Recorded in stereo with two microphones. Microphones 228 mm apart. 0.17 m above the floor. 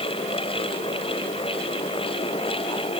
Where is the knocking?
No knocking in this recording.